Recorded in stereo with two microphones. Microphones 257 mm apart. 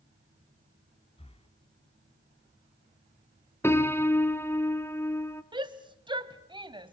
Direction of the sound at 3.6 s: 10° left (ahead or behind).